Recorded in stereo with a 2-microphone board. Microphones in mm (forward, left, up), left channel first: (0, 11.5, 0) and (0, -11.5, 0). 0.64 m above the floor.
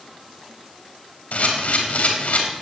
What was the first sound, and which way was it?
A camera shutter, 75° left (ahead or behind).